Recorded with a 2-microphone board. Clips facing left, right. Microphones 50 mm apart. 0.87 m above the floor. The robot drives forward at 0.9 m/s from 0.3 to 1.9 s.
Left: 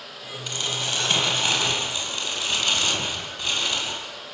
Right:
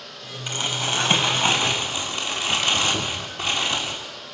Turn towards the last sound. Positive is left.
turn(degrees=-15)  # may be behind; listen again after turning